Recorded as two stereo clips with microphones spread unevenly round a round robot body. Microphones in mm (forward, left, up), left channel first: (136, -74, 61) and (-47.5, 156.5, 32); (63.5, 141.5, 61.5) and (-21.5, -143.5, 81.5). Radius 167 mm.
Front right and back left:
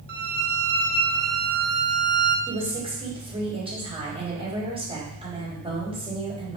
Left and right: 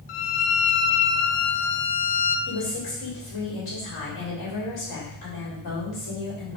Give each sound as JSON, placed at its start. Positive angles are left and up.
{"t": 0.1, "sound": "a violin", "azimuth_deg": 70, "distance_m": 0.7}
{"t": 2.5, "sound": "a woman speaking", "azimuth_deg": 55, "distance_m": 3.5}